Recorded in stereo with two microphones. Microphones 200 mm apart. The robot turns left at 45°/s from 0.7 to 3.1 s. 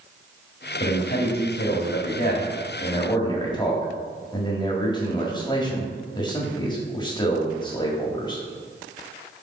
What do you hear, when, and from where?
0.8 s a man speaking: 130° left, 1.6 m; by 8.4 s 25° left, 1.6 m